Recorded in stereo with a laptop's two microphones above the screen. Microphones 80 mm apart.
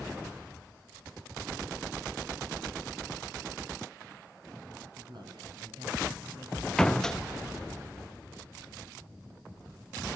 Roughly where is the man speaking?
Right.